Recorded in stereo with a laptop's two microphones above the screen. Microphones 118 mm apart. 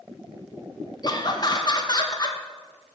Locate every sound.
1.0 s laughter: 40° left (ahead or behind), 0.9 m